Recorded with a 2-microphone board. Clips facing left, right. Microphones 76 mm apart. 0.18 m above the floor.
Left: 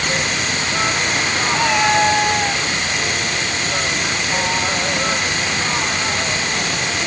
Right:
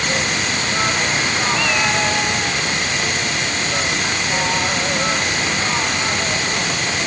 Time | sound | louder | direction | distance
1.5 | a cat meowing | left 7 dB | 30° left (ahead or behind) | ?